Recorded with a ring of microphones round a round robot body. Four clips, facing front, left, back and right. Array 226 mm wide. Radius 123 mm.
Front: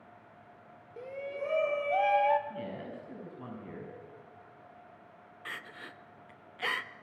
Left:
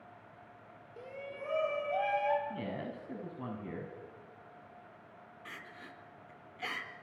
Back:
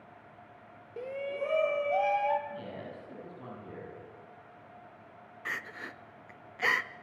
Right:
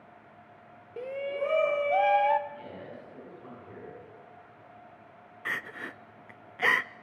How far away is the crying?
About 0.5 m.